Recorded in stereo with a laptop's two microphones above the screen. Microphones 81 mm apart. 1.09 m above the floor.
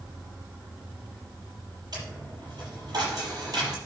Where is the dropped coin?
55° right (ahead or behind), 6 m.